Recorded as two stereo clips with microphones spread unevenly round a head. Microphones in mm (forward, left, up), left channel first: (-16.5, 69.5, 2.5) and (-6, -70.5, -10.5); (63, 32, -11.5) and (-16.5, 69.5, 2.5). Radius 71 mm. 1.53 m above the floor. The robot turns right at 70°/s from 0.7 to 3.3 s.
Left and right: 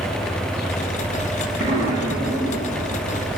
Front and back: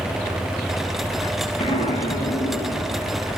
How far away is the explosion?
About 1.9 m.